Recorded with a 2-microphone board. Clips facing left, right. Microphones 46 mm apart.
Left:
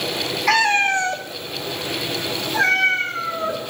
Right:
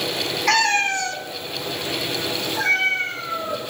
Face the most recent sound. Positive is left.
turn(degrees=85)